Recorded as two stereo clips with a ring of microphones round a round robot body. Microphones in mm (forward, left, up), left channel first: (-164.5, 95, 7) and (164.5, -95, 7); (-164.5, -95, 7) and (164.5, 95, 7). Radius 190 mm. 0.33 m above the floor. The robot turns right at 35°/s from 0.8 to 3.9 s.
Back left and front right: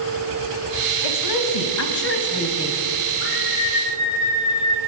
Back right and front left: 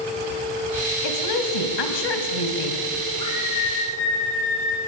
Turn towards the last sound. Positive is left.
turn(degrees=-170)